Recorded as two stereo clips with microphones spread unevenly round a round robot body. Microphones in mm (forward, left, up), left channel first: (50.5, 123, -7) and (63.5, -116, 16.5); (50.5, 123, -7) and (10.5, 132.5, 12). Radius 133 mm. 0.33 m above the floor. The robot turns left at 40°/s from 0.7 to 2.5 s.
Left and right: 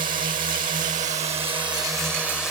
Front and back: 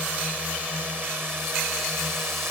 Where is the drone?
115° right; by 2.5 s 175° left.